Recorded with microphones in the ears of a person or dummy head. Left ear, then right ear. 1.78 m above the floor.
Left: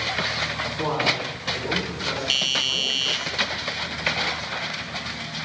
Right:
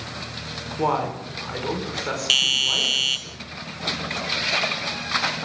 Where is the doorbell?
20° right (ahead or behind), 1.3 m.